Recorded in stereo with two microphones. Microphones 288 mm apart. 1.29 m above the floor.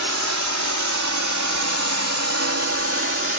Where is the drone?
70° right (ahead or behind); by 3.4 s 45° right (ahead or behind).